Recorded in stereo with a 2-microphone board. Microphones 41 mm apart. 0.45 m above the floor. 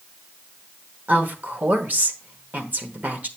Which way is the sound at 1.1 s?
45° right (ahead or behind).